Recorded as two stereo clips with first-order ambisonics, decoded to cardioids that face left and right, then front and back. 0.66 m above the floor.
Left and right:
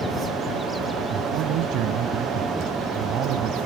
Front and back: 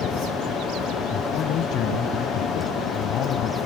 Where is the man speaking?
50° right.